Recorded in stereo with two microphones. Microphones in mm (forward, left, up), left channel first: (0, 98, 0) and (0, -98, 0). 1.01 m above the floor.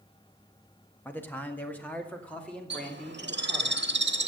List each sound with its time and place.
1.1 s a man speaking: 10° left (ahead or behind), 1.5 m; by 3.7 s 5° left (ahead or behind), 3.5 m
2.7 s a bird: 75° right (ahead or behind), 1.2 m